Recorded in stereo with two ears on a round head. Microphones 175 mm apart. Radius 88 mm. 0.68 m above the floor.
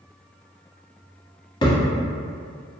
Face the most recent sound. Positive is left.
turn(degrees=25)  # may be behind; listen again after turning